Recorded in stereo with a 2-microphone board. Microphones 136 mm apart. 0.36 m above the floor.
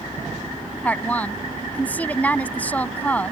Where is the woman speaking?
10° left (ahead or behind).